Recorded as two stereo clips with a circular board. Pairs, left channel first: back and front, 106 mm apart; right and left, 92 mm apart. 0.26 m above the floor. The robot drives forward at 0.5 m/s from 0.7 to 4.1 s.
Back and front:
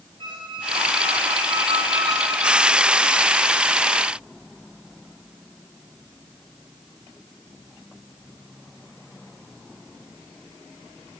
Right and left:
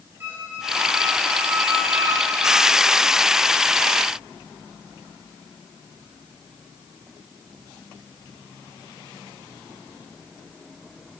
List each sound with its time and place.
0.2 s a squeak: 30° left, 1.9 m; by 3.0 s 60° left, 1.1 m